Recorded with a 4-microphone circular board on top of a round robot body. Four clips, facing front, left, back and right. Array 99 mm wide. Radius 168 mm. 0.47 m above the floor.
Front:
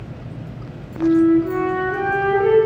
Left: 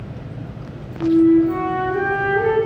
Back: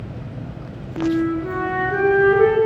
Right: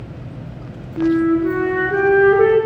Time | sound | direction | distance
1.0 | a flute | 110° right | 4.5 m